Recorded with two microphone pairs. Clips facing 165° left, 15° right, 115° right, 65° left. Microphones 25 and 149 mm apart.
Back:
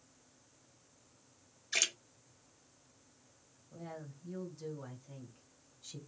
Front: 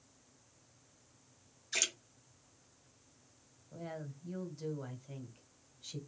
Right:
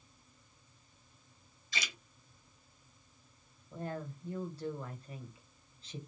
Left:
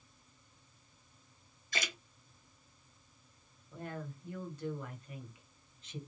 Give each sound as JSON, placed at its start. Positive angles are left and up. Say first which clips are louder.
{"t": 1.7, "sound": "a splash", "louder": "back 2 dB, left 3 dB", "azimuth_deg": 90, "distance_m": 1.1}
{"t": 3.7, "sound": "a woman speaking", "louder": "front 3 dB, right 3 dB", "azimuth_deg": -70, "distance_m": 1.6}